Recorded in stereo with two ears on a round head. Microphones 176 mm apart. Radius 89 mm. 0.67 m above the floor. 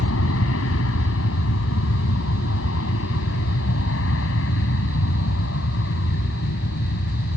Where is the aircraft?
75° left (ahead or behind); by 7.4 s 65° left (ahead or behind).